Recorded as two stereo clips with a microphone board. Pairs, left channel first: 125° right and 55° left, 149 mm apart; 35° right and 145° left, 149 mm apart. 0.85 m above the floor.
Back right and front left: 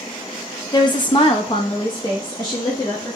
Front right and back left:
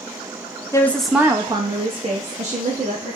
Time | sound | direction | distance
0.7 | a woman speaking | 85° right | 0.6 m